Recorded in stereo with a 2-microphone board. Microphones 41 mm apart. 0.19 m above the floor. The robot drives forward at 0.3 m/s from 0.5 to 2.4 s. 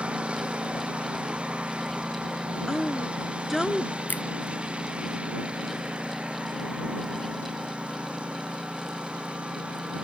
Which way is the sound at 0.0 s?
20° right (ahead or behind).